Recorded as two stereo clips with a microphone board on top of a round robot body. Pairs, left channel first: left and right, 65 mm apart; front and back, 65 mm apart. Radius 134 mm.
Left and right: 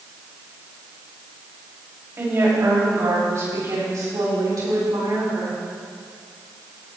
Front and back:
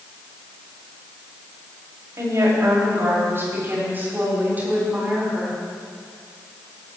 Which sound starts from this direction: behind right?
A woman speaking, at 2.2 s.